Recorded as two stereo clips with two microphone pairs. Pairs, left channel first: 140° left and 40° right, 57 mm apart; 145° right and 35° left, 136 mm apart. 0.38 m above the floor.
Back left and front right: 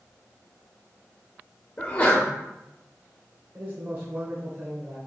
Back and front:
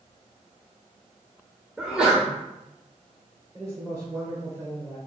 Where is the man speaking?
25° right, 1.4 m.